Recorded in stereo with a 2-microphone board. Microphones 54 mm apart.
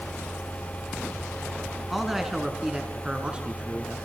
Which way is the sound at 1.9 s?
Centre (ahead or behind).